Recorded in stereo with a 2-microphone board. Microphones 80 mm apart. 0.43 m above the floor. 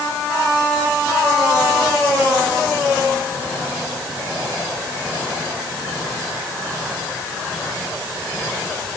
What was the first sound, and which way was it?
Only background noise.